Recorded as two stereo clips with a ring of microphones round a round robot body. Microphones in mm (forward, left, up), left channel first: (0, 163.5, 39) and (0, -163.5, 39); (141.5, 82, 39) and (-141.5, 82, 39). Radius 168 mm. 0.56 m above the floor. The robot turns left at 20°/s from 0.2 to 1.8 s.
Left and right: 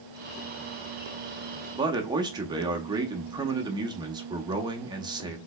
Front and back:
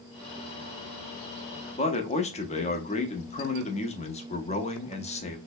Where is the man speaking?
30° right, 0.6 m.